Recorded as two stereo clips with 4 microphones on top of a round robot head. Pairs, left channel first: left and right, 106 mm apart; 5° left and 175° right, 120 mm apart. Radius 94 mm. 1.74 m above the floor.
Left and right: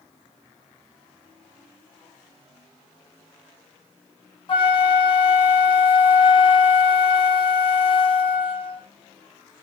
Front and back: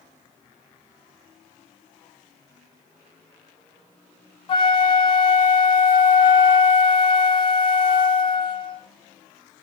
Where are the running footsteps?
I don't hear running footsteps.